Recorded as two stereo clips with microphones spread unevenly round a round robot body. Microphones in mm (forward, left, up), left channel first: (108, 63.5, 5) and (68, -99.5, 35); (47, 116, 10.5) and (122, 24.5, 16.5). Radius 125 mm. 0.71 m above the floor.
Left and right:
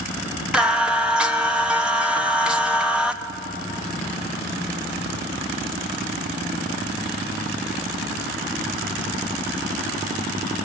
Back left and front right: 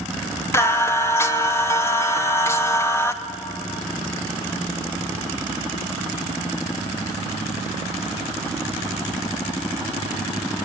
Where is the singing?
160° left, 0.7 m.